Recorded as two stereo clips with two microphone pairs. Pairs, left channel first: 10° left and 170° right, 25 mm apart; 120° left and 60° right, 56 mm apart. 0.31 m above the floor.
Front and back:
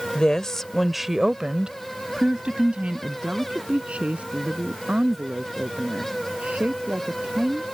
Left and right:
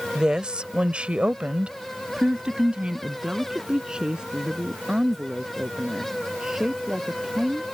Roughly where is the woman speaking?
Ahead.